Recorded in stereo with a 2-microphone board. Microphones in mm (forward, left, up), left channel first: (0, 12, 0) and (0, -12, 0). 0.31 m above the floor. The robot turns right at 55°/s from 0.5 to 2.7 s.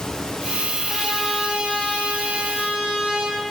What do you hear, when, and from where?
0.9 s a trumpet: 170° right, 6 m; by 3.4 s 70° right, 6 m